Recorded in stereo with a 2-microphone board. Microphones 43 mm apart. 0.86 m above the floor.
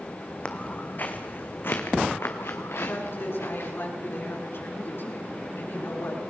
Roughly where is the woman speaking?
Left.